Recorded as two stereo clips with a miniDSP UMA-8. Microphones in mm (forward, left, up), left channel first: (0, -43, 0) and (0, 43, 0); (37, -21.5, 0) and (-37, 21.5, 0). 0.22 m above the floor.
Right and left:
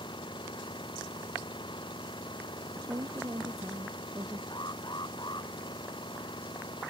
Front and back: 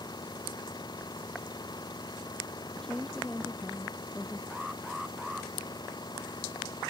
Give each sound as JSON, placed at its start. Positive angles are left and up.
{"t": 0.0, "sound": "an engine running", "azimuth_deg": -65}
{"t": 2.8, "sound": "a woman speaking", "azimuth_deg": 50}
{"t": 4.5, "sound": "an alarm", "azimuth_deg": -125}